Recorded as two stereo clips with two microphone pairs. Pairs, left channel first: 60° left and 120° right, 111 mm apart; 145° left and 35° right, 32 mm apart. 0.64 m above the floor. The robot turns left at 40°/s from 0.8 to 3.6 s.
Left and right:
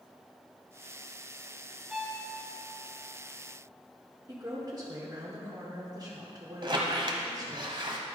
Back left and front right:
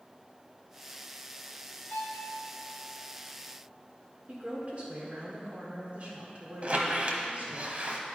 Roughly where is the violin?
Behind left.